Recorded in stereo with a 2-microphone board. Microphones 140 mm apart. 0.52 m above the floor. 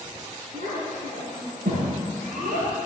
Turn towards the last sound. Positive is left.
turn(degrees=-80)